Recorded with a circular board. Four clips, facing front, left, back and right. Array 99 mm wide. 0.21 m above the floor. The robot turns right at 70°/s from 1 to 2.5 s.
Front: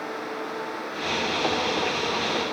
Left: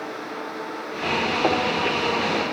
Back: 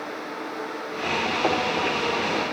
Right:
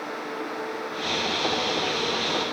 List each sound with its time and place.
Only background noise.